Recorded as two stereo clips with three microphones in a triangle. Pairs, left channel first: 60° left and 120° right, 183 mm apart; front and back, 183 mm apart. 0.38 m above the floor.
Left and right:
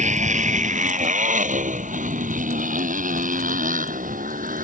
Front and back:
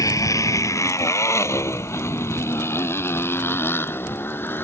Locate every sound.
0.0 s a motorcycle: 70° right; by 4.6 s 80° right